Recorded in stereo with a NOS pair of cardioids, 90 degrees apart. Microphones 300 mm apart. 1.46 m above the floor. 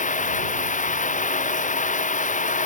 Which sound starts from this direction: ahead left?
Running water, at 0.0 s.